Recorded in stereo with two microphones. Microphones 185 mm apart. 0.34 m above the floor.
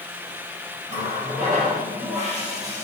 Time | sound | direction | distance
0.9 | a running tap | 40° right (ahead or behind) | 6 m